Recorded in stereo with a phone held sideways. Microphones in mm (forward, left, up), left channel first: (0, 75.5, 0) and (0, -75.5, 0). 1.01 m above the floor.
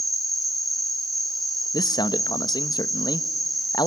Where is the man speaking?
25° left (ahead or behind), 0.8 m.